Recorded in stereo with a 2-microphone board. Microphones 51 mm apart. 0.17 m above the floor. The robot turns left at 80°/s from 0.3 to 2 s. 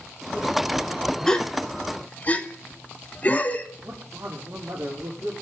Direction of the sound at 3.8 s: 70° right (ahead or behind).